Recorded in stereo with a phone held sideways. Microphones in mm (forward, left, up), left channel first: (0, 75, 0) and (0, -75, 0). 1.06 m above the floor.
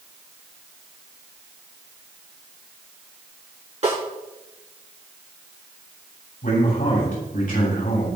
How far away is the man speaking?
About 7.5 m.